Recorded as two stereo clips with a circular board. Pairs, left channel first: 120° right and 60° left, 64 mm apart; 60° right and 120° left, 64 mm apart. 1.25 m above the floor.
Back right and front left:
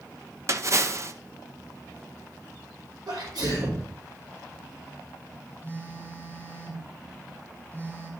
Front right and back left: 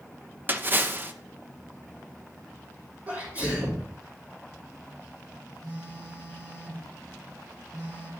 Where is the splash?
70° left, 0.7 m.